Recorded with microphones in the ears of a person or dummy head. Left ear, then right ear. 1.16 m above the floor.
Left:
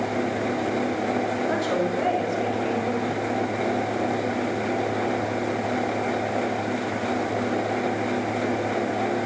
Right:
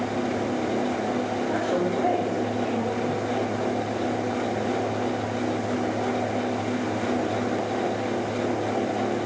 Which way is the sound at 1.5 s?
55° left (ahead or behind).